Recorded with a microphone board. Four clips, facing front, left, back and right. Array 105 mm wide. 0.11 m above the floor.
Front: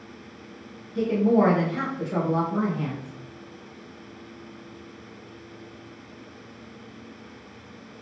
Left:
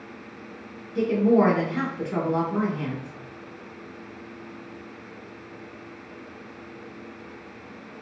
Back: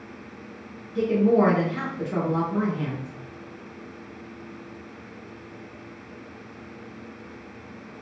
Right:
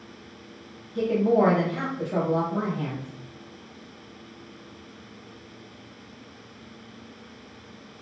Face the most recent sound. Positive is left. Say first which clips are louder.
# left 2 dB, back 1 dB
turn(degrees=95)